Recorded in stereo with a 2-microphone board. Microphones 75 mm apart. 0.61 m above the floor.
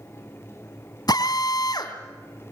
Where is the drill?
70° left (ahead or behind), 3 m.